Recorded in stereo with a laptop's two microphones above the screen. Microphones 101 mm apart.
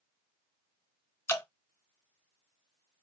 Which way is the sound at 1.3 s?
25° left (ahead or behind).